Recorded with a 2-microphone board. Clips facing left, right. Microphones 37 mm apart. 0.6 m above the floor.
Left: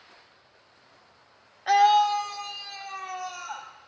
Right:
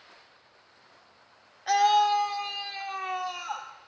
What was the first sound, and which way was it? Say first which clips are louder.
A scream: left 3 dB; 20° left (ahead or behind).